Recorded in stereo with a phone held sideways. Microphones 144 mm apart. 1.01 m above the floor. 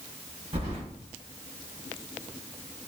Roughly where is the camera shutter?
No camera shutter in this recording.